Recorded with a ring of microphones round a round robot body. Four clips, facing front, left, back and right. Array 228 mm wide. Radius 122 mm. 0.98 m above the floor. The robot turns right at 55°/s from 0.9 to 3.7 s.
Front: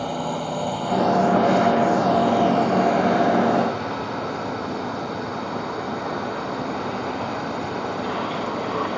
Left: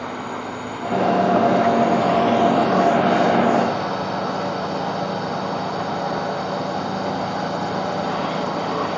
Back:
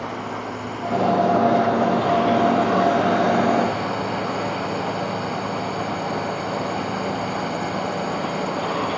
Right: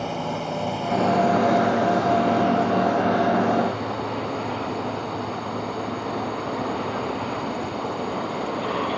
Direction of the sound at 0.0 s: 35° right.